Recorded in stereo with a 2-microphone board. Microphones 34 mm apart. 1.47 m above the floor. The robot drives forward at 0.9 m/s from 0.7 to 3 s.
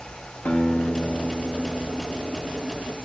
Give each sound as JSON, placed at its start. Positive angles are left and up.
{"t": 0.5, "sound": "a guitar", "side_deg": 80, "distance_m": 5.0}